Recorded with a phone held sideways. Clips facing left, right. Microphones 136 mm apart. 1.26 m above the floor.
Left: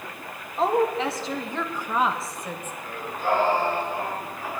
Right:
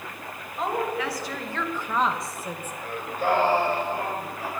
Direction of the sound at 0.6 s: 35° left (ahead or behind).